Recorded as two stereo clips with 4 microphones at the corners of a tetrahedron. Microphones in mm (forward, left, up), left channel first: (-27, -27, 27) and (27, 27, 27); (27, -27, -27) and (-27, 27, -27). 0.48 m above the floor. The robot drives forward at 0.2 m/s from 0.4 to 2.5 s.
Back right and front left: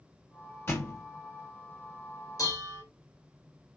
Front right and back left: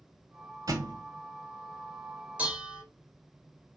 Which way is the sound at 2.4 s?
155° right.